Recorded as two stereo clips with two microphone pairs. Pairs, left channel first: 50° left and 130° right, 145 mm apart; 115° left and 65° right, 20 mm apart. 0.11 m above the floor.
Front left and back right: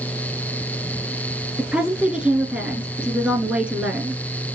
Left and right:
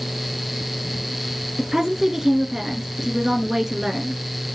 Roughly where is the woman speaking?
Ahead right.